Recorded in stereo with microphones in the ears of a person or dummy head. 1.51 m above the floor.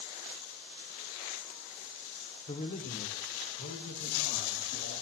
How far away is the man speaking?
About 0.9 m.